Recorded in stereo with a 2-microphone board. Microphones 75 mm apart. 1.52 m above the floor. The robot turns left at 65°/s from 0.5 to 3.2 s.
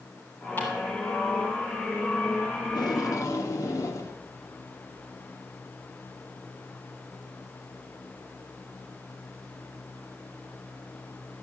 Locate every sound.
0.6 s ticking: 25° left (ahead or behind), 5 m; by 0.7 s 30° left (ahead or behind), 5 m
2.6 s tape being pulled: 80° left, 1.6 m; by 4.2 s 45° left, 1.6 m